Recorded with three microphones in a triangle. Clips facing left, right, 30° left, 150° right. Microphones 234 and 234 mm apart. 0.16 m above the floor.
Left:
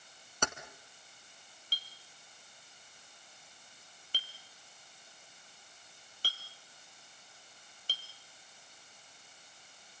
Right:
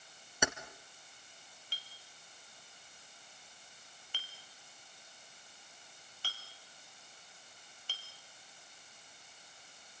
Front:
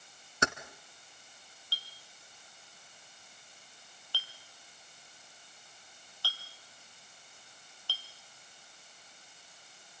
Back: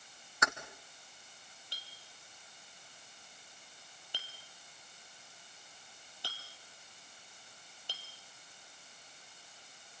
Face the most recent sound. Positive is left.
turn(degrees=140)